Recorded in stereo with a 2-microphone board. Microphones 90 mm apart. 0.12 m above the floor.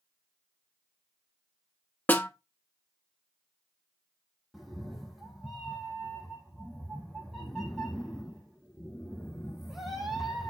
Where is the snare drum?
20° left (ahead or behind), 0.9 m.